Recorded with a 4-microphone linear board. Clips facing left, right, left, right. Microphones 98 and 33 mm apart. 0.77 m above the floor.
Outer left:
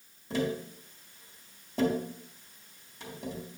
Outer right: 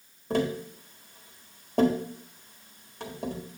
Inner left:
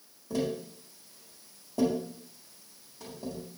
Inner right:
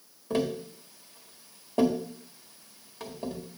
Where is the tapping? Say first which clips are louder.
Outer right 4 dB, inner right 3 dB; 55° right (ahead or behind), 1.8 m.